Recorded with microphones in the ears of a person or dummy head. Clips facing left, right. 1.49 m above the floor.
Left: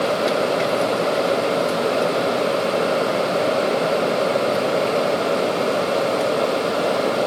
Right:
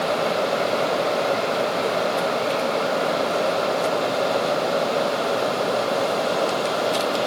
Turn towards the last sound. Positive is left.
No sound to turn to.